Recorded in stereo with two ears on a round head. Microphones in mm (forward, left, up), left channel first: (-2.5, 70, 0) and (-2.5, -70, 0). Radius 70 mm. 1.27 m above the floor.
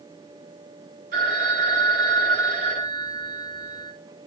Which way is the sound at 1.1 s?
65° right (ahead or behind).